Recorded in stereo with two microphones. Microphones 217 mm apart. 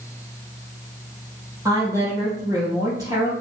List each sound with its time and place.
1.6 s a woman speaking: 15° right (ahead or behind), 3 m